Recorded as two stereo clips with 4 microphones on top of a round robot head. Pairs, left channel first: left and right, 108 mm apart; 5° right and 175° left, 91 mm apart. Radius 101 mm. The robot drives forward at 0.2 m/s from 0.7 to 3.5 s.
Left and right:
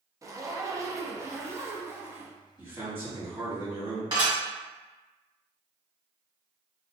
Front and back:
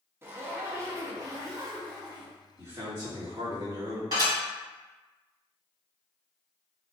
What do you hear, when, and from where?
0.2 s a zipper: 135° right, 0.5 m; by 2.4 s 160° right, 0.8 m
2.6 s a man speaking: 150° right, 1.6 m; by 4.0 s 155° right, 1.7 m
4.1 s dishes clattering: 135° right, 1.7 m